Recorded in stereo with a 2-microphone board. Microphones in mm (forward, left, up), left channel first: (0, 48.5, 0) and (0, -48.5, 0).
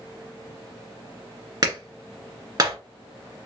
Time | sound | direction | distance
1.6 | a clap | 45° right (ahead or behind) | 1.6 m